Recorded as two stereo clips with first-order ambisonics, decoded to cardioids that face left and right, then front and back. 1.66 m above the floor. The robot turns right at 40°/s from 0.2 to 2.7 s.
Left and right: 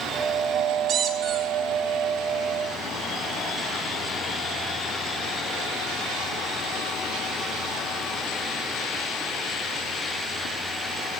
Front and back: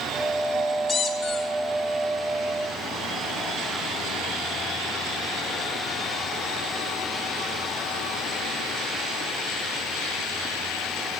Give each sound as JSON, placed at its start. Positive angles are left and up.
{"t": 0.9, "sound": "a squeak", "azimuth_deg": -55, "distance_m": 1.2}